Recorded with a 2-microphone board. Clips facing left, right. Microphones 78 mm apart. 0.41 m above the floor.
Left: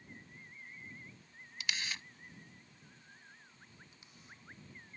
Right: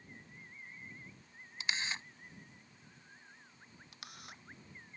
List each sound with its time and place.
1.6 s a camera shutter: 30° right (ahead or behind)
3.9 s a camera shutter: 80° right